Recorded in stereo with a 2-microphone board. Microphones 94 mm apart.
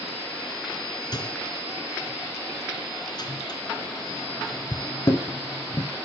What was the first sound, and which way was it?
A microwave, 45° left (ahead or behind).